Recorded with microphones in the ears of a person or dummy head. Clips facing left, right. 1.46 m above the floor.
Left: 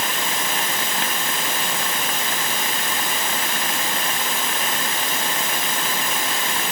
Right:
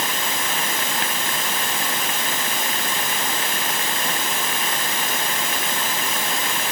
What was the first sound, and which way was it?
Only background noise.